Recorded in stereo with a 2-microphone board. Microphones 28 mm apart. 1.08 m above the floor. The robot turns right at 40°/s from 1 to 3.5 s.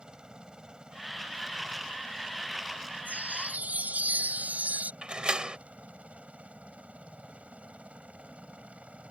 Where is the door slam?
30° right (ahead or behind).